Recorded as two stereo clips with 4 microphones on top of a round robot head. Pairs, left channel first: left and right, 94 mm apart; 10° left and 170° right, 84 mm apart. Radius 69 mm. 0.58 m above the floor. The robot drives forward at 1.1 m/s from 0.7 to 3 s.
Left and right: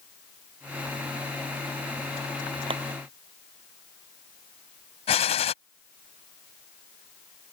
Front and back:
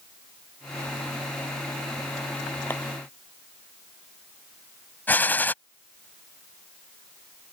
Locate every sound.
2.7 s a clap: 65° right
5.1 s a gunshot: 80° left